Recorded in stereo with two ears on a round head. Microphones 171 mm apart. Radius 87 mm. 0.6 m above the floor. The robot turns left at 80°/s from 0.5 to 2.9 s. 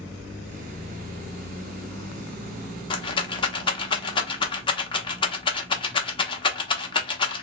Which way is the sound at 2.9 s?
25° left (ahead or behind).